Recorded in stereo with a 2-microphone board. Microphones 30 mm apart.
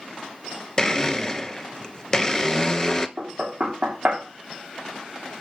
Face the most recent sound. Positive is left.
turn(degrees=-35)  # may be behind; listen again after turning